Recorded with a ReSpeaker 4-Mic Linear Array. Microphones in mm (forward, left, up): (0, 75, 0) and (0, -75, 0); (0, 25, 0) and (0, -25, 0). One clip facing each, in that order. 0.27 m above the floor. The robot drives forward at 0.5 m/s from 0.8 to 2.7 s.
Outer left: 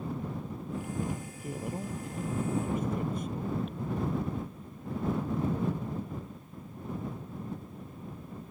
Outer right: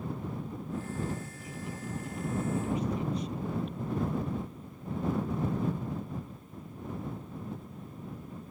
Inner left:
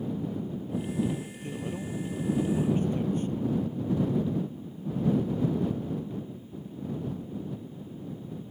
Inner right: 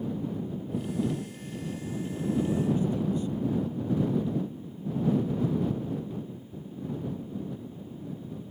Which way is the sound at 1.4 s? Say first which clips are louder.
Outer left 4 dB, inner left 1 dB; 55° left (ahead or behind).